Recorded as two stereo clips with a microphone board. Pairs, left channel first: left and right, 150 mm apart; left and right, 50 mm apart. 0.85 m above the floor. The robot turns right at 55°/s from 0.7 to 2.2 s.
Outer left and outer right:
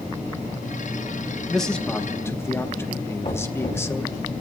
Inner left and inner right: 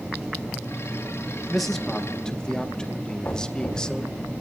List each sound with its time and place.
1.5 s a man speaking: centre (ahead or behind), 0.7 m; by 4.2 s 15° left (ahead or behind), 0.7 m
3.2 s knocking: 50° left (ahead or behind), 3.5 m